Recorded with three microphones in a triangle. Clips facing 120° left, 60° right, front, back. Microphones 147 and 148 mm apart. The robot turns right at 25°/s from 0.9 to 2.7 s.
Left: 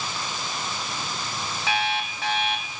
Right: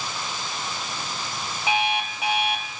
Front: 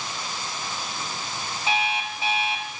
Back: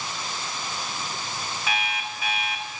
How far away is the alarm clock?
About 0.8 m.